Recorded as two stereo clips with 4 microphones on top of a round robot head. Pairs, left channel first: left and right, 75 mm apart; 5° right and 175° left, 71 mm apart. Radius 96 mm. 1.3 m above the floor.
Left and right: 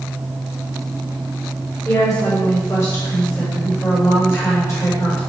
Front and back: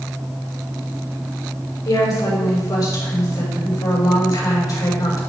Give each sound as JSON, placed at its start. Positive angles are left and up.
{"t": 1.9, "sound": "a woman speaking", "azimuth_deg": 35, "distance_m": 6.5}